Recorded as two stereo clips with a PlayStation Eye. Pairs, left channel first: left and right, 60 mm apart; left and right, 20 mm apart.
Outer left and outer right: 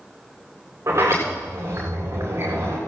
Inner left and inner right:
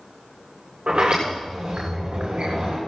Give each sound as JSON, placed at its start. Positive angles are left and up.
{"t": 0.9, "sound": "a sliding door", "side_deg": -50, "distance_m": 7.5}